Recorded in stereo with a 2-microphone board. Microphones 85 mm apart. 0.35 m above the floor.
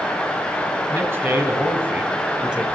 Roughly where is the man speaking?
Right.